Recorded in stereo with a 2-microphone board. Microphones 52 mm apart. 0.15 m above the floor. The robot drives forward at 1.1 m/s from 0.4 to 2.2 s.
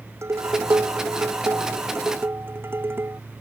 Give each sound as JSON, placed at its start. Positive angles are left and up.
{"t": 0.2, "sound": "dishes clattering", "side_deg": -60}